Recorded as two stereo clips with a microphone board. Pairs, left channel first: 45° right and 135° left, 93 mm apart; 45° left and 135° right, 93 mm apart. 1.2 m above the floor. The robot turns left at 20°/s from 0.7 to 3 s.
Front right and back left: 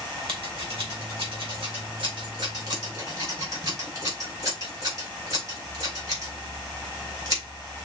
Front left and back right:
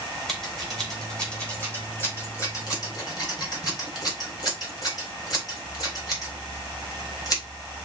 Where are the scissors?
135° left, 2.5 m; by 7.4 s 90° left, 2.5 m.